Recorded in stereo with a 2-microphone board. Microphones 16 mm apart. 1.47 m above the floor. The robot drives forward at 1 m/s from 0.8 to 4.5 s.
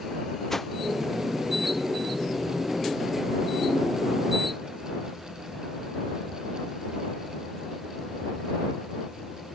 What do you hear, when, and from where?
0.5 s a whoosh: 20° left (ahead or behind)